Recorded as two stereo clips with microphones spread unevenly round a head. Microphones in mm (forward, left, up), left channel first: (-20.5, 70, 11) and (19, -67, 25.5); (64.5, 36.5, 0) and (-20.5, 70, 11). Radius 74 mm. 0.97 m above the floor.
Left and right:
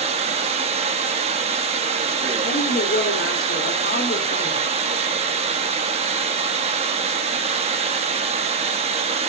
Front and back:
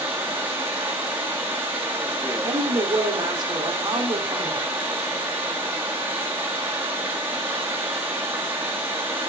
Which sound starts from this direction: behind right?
Running water, at 0.0 s.